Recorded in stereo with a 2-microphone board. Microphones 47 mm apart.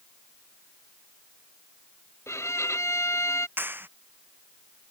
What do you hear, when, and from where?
2.3 s a violin: 75° left (ahead or behind)
3.6 s a clap: 45° right (ahead or behind)